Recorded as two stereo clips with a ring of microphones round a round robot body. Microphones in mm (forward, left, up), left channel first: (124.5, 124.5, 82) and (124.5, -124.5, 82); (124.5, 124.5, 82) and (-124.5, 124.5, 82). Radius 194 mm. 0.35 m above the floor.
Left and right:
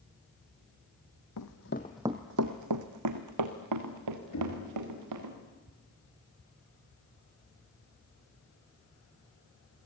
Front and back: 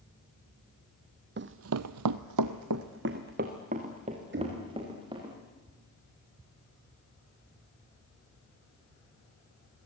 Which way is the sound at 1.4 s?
130° left.